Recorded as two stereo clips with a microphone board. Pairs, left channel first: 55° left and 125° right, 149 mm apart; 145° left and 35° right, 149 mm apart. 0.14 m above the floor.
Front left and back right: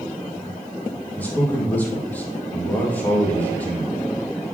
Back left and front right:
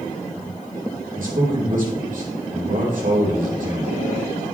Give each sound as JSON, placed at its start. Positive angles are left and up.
{"t": 1.2, "sound": "a man speaking", "azimuth_deg": -20, "distance_m": 3.5}